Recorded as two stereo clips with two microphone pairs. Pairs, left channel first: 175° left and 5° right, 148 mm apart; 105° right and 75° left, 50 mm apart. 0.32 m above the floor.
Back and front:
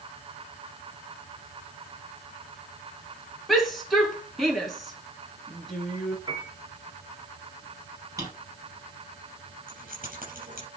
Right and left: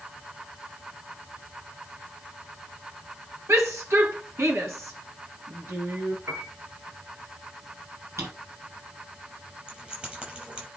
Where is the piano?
55° left, 2.5 m.